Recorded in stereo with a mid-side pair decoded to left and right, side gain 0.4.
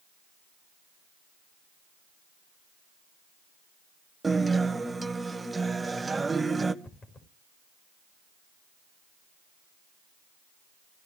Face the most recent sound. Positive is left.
turn(degrees=45)